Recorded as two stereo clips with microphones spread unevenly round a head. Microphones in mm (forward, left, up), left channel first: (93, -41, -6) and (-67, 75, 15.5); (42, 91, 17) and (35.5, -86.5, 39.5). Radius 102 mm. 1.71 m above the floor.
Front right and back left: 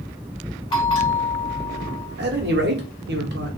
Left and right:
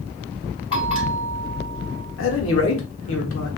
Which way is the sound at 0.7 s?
30° left.